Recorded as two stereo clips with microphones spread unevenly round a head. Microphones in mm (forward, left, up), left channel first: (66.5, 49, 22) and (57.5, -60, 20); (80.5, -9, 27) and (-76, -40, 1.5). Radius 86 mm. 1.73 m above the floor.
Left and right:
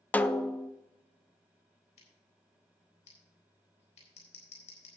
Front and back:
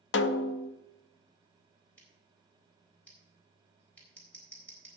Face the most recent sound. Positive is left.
turn(degrees=90)